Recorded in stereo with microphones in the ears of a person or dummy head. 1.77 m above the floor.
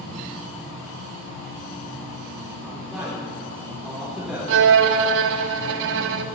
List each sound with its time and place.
2.6 s a man speaking: 5° left (ahead or behind), 4 m
4.5 s a violin: 65° right (ahead or behind), 0.5 m